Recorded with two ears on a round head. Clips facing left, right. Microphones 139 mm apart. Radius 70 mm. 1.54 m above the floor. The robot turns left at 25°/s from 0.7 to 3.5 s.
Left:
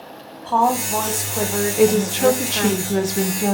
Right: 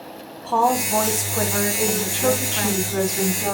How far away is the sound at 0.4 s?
About 1.8 m.